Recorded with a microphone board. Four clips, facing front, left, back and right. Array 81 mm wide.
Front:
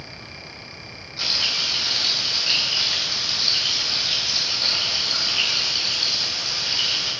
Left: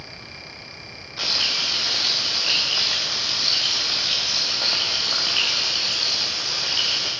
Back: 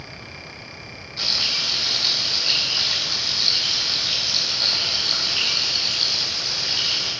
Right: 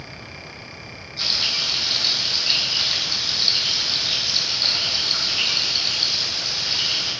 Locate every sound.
1.2 s frying: 100° left, 2.5 m